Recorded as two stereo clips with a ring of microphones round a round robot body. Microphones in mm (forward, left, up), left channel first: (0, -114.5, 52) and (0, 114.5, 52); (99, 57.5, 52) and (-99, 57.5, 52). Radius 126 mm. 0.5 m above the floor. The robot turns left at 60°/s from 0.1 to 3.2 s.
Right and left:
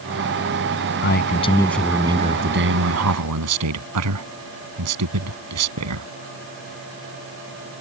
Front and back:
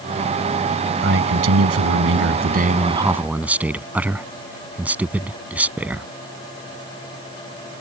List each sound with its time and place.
1.0 s a man speaking: 130° right; by 6.1 s 95° left